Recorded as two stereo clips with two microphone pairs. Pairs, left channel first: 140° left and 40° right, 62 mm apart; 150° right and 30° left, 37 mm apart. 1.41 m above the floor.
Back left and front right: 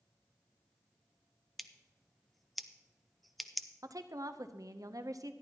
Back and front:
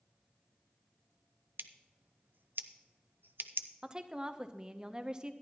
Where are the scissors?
50° left, 0.5 m.